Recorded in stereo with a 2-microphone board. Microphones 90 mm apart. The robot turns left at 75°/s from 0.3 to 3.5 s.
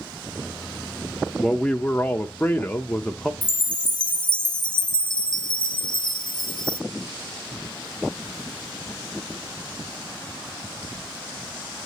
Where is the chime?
60° left (ahead or behind), 0.6 m; by 6.8 s 55° left (ahead or behind), 0.6 m.